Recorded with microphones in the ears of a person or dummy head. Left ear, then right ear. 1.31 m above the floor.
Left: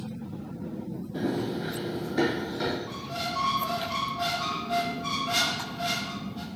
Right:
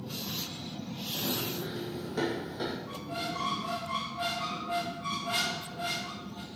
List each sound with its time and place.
1.1 s running footsteps: 60° right (ahead or behind), 2.5 m; by 2.8 s 30° right (ahead or behind), 2.5 m
2.9 s a squeak: 20° right (ahead or behind), 0.8 m